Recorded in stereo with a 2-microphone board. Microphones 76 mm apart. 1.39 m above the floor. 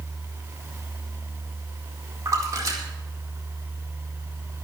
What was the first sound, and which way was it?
A splash, 45° right (ahead or behind).